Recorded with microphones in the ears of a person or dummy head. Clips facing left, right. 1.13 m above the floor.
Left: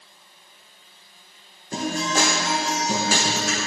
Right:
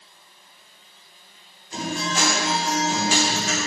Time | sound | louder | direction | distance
1.7 | a guitar | left 3 dB | 45° left (ahead or behind) | 1.3 m